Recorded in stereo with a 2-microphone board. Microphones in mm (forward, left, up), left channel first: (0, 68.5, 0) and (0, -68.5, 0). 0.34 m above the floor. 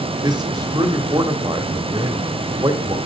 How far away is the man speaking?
About 1.3 m.